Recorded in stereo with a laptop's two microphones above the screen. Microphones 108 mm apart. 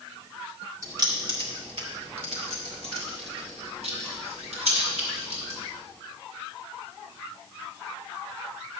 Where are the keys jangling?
35° right (ahead or behind), 1.8 m; by 5.6 s 70° right (ahead or behind), 5.5 m.